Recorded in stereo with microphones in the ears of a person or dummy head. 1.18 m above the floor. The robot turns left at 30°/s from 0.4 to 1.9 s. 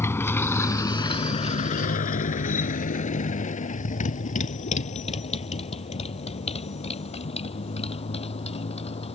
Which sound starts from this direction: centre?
A motorcycle, at 0.0 s.